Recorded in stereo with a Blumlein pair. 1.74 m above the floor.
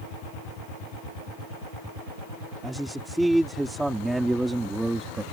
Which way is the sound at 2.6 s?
5° right.